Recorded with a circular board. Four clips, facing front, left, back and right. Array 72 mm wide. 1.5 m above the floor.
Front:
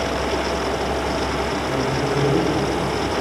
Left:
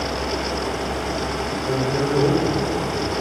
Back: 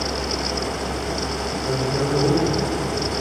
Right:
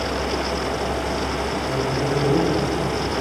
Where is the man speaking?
130° left, 6 m; by 3.1 s 125° left, 7 m.